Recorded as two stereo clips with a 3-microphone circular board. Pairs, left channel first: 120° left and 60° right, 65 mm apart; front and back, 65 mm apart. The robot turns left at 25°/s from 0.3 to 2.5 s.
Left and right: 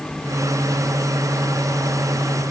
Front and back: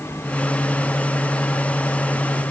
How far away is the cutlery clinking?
No cutlery clinking in this recording.